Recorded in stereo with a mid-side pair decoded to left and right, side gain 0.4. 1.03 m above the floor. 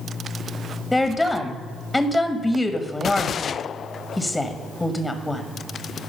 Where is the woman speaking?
10° left, 1.2 m.